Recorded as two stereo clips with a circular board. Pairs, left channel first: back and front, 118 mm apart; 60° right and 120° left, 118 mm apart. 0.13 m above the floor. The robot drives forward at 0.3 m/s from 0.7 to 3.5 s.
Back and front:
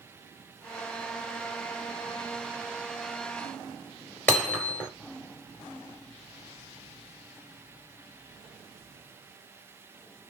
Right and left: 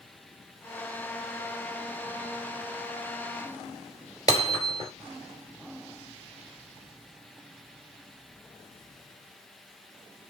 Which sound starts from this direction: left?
Hammering, at 4.3 s.